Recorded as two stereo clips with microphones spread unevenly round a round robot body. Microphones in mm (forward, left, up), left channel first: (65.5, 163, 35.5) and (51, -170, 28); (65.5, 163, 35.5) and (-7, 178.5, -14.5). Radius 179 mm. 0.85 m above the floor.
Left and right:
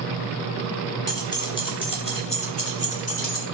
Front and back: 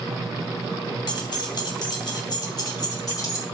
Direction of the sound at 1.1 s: 5° left.